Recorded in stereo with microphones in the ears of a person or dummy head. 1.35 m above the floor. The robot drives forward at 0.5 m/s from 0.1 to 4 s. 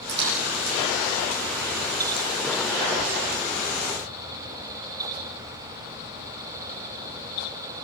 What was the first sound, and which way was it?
A splash, 55° right (ahead or behind).